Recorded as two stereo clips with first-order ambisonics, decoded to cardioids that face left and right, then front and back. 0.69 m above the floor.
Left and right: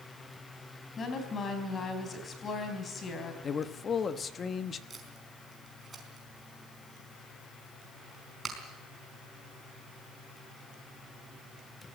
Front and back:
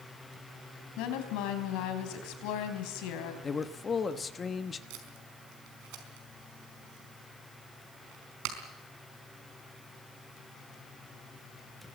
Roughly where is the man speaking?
Ahead left.